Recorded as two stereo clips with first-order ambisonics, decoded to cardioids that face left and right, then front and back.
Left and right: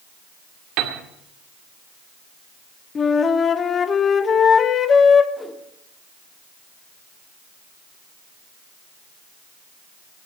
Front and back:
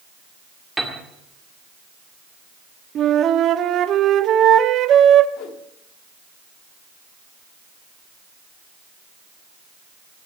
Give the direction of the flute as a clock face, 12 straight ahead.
7 o'clock.